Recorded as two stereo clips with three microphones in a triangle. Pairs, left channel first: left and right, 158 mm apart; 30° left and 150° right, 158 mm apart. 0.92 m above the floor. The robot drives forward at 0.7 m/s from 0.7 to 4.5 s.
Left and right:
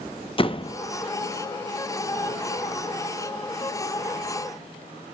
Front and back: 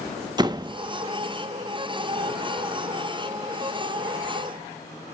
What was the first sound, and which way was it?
A door slam, 150° left.